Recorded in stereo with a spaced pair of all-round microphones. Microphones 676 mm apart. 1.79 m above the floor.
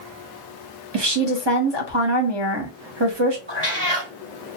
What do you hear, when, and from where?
0.9 s a woman speaking: 40° right (ahead or behind), 0.8 m
3.5 s a cat meowing: 40° right (ahead or behind), 2 m